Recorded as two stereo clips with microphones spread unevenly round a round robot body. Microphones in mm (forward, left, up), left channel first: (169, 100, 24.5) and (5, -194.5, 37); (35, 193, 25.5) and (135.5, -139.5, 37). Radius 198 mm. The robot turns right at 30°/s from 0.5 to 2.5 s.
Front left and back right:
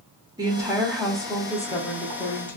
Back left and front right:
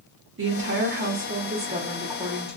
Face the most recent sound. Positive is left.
turn(degrees=15)